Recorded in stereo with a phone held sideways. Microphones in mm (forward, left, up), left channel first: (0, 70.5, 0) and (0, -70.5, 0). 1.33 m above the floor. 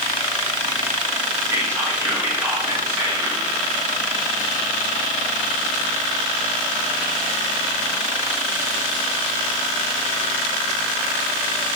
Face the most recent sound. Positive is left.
turn(degrees=-20)  # may be behind; listen again after turning